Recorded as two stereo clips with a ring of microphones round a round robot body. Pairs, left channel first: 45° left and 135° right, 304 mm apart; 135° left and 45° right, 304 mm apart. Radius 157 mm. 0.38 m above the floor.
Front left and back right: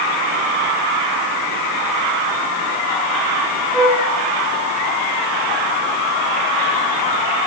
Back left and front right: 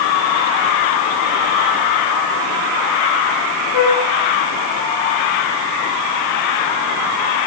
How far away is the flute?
About 5.5 m.